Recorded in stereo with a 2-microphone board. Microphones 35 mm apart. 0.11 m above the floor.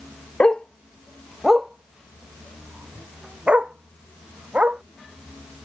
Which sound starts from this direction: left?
A dog barking, at 0.4 s.